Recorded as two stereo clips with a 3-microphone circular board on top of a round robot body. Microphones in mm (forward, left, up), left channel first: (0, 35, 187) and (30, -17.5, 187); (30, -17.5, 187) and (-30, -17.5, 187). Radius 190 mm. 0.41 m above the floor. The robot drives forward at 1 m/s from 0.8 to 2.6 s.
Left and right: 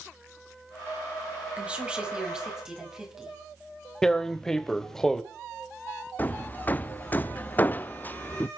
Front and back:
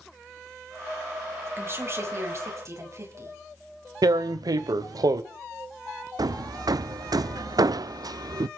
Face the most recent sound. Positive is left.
turn(degrees=180)